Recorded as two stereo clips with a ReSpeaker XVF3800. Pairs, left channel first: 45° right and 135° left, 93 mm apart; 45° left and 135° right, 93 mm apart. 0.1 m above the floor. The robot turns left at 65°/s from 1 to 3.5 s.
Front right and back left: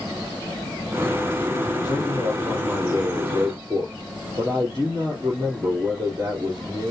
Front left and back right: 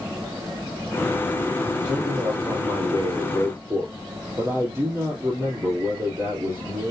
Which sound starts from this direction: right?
A man speaking, at 1.8 s.